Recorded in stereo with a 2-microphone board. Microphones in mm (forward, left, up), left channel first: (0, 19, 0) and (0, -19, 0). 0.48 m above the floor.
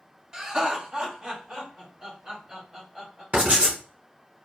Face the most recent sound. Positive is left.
turn(degrees=-30)  # may be behind; listen again after turning